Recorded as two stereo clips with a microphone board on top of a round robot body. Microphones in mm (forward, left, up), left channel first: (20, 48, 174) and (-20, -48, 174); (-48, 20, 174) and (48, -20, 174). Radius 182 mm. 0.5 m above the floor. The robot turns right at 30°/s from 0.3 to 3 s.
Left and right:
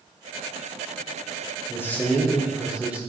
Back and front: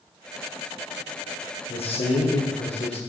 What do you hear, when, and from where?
1.7 s a man speaking: 135° left, 1.8 m; by 3.0 s 170° left, 1.8 m